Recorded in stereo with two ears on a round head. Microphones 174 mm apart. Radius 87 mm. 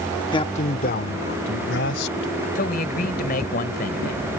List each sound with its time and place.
0.3 s a man speaking: 25° left (ahead or behind); by 2.5 s 65° left (ahead or behind)
2.5 s a man speaking: 45° left (ahead or behind)